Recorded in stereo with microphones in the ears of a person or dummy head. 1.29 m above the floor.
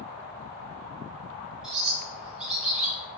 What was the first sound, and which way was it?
A bird, 5° right (ahead or behind).